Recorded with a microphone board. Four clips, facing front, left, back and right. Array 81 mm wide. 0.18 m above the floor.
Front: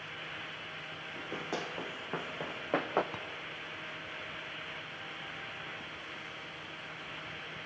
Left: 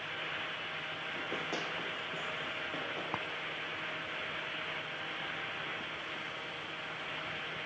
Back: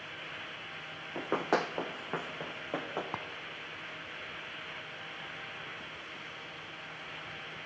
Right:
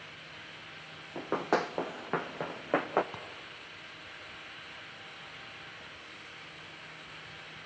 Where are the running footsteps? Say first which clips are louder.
Right 10 dB, back 9 dB; 150° right, 0.9 m; by 3.0 s 60° right, 1.0 m.